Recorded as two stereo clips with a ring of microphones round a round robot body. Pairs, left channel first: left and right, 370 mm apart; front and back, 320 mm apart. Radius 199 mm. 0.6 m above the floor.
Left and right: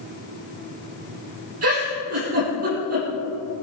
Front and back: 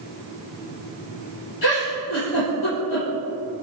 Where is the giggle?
35° right, 6 m.